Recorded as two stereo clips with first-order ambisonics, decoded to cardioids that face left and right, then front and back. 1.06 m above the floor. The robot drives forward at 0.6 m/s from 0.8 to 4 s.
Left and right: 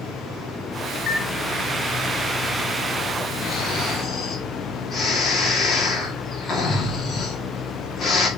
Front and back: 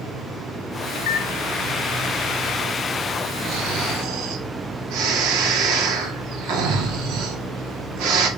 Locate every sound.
0.9 s a microwave: 20° left, 1.2 m; by 1.3 s 25° left, 1.0 m
3.5 s snoring: 155° left, 1.9 m; by 8.3 s 160° left, 2 m